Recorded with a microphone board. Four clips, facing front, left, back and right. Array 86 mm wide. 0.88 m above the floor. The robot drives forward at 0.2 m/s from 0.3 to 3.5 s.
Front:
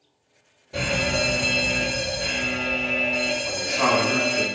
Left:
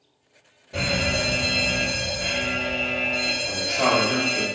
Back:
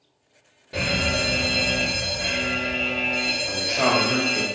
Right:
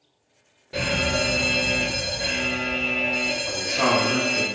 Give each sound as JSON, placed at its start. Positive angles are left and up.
{"t": 0.7, "sound": "a fire alarm", "azimuth_deg": -145, "distance_m": 1.5}
{"t": 3.4, "sound": "a man speaking", "azimuth_deg": -160, "distance_m": 1.7}